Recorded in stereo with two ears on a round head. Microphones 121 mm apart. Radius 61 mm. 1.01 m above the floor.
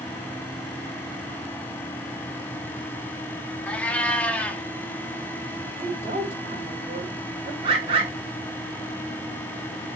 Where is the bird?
40° right (ahead or behind), 1.5 m.